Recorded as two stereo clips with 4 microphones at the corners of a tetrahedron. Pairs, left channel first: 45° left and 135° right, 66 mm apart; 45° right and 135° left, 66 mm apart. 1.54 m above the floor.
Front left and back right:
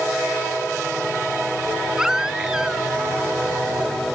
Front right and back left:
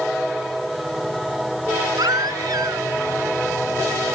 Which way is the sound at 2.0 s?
145° left.